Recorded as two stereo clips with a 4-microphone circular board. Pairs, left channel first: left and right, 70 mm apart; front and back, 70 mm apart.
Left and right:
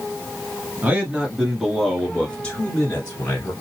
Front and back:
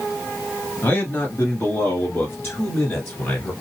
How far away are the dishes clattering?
No dishes clattering in this recording.